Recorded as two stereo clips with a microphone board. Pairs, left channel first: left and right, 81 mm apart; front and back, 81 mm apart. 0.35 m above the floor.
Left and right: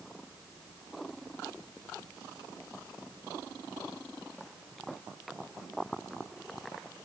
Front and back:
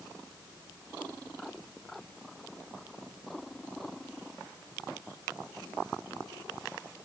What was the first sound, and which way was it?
Only background noise.